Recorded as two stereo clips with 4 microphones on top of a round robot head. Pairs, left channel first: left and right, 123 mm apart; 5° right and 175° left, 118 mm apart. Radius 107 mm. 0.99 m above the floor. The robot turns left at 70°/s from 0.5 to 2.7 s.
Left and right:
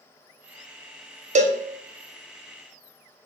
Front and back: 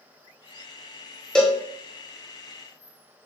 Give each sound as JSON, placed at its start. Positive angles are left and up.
{"t": 1.4, "sound": "a cowbell", "azimuth_deg": -90, "distance_m": 0.9}